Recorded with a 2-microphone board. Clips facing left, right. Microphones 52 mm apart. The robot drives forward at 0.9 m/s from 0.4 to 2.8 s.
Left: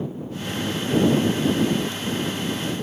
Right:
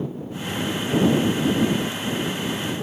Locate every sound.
Only background noise.